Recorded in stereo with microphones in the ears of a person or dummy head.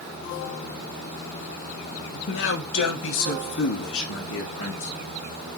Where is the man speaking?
65° left (ahead or behind), 1.1 m; by 4.9 s 80° left, 4 m.